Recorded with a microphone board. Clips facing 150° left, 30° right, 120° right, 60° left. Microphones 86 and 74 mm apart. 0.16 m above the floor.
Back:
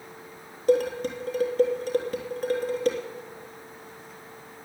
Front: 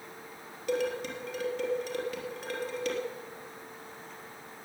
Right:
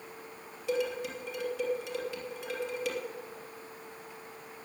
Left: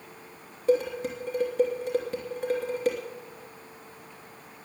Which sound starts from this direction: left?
Dishes clattering, at 0.7 s.